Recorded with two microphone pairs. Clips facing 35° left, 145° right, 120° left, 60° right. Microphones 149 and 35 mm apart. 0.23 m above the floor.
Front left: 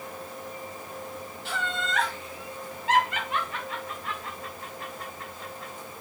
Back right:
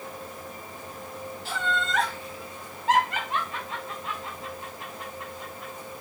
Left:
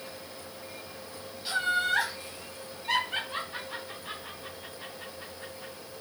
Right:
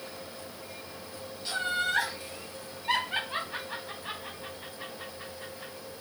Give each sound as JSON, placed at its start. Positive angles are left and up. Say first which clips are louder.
{"t": 1.4, "sound": "laughter", "louder": "back right 2 dB, left 3 dB", "azimuth_deg": -170, "distance_m": 1.5}